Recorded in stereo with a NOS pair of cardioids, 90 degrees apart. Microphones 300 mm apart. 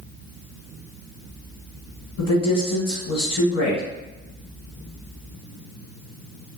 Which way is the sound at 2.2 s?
65° left.